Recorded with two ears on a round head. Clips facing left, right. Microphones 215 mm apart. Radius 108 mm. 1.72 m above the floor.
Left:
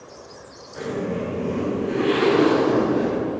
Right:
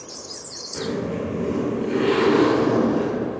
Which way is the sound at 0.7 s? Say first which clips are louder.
Even; 60° right (ahead or behind).